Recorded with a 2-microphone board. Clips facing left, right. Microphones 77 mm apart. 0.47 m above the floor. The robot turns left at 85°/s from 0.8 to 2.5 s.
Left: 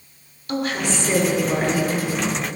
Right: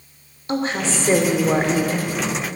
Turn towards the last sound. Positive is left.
turn(degrees=170)